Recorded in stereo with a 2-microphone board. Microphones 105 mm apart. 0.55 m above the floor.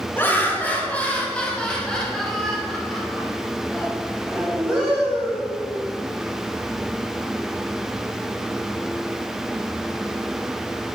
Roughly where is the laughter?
Left.